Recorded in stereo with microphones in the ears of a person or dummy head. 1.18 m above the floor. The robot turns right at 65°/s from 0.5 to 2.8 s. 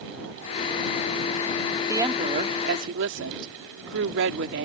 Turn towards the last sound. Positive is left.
turn(degrees=-110)